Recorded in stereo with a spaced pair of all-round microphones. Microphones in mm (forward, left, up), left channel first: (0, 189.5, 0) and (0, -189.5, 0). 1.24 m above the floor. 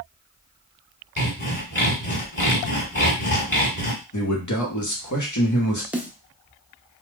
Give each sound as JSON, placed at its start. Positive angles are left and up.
{"t": 1.2, "sound": "sawing", "side_deg": 30, "distance_m": 1.5}
{"t": 4.1, "sound": "a man speaking", "side_deg": 50, "distance_m": 0.9}
{"t": 5.9, "sound": "a snare drum", "side_deg": -5, "distance_m": 0.5}